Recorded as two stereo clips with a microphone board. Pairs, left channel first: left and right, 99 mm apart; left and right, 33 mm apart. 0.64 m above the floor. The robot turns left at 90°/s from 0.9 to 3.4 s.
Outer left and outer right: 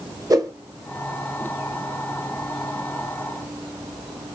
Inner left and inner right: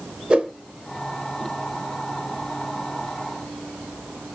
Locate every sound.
0.3 s a whoosh: 35° right (ahead or behind), 0.8 m